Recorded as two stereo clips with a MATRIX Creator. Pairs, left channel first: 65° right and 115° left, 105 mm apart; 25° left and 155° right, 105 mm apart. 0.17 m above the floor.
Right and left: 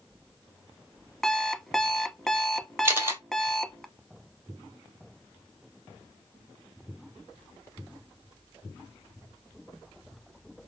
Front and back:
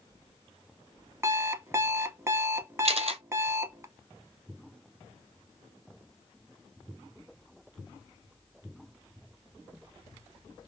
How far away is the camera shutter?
About 0.9 m.